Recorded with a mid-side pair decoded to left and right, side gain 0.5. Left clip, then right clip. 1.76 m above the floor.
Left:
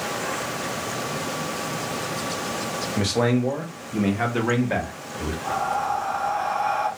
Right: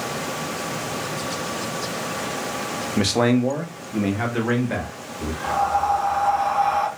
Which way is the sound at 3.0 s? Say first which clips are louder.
Right 3 dB; 35° right.